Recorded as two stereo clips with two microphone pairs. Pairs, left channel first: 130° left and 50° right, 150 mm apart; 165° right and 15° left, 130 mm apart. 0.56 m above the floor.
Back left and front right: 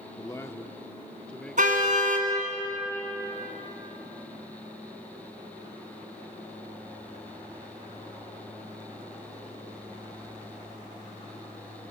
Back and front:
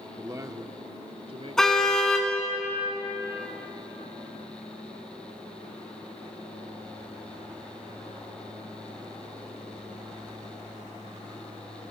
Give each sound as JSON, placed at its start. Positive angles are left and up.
{"t": 0.2, "sound": "a man speaking", "azimuth_deg": 80, "distance_m": 1.0}
{"t": 1.6, "sound": "a car horn", "azimuth_deg": -75, "distance_m": 2.5}